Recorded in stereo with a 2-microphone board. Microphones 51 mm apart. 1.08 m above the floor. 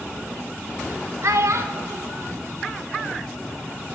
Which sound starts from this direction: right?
A child speaking, at 1.2 s.